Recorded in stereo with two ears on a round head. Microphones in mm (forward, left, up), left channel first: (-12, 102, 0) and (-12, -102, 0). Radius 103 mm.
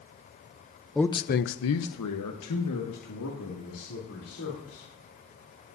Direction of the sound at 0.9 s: Centre (ahead or behind).